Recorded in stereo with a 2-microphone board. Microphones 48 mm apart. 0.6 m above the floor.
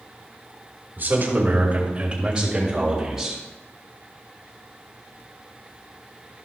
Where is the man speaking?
50° right (ahead or behind), 3 m; by 3.4 s 10° right (ahead or behind), 4 m.